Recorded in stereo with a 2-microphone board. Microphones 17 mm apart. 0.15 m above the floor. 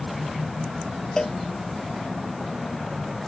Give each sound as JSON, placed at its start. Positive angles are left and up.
{"t": 1.2, "sound": "a cowbell", "side_deg": 40}